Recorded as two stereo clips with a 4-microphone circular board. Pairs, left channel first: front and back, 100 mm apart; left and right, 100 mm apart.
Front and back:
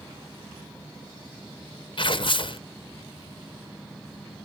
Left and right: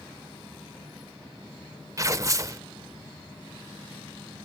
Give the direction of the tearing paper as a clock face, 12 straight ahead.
1 o'clock.